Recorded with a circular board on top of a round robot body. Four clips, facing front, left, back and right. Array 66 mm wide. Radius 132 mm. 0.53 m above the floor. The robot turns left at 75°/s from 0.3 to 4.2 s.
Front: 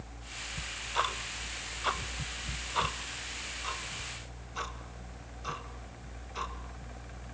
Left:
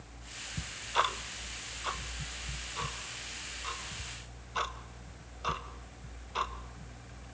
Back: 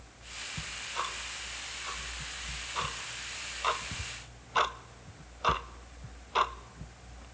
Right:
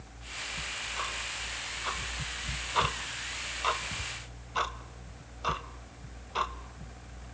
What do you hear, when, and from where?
0.6 s ticking: 100° left, 0.5 m; by 7.2 s 175° right, 0.5 m